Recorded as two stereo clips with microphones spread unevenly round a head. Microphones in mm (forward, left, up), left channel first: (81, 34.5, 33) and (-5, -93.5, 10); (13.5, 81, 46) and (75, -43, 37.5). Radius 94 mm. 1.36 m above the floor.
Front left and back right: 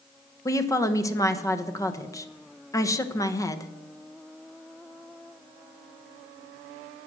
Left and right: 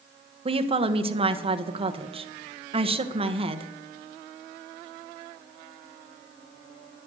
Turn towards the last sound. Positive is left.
turn(degrees=-15)